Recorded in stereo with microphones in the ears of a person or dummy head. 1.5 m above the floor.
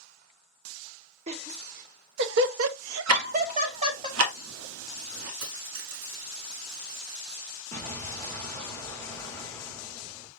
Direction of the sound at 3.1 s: 85° right.